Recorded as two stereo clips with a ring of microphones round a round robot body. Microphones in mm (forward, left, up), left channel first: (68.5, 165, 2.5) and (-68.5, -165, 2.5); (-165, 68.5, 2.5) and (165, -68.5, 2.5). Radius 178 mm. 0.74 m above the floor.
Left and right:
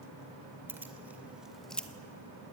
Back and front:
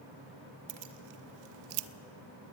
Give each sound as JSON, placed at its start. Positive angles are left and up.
{"t": 0.7, "sound": "keys jangling", "azimuth_deg": -30, "distance_m": 2.0}